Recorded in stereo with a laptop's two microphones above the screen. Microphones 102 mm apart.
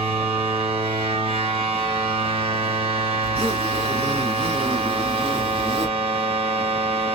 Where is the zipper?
60° right (ahead or behind), 1.8 m.